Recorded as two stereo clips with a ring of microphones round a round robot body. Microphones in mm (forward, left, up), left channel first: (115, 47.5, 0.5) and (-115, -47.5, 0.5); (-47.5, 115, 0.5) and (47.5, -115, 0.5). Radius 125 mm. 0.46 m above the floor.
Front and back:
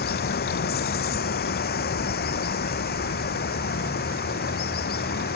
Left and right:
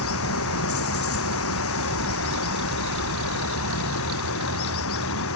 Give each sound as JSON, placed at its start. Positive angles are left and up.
{"t": 0.0, "sound": "running water", "azimuth_deg": 75}